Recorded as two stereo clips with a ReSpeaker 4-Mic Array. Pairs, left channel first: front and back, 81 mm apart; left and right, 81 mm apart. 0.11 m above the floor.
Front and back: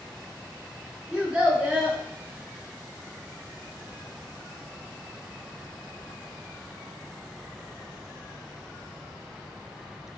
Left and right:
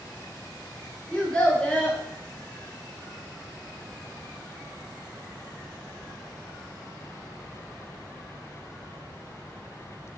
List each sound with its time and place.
1.1 s a child speaking: 130° left, 0.6 m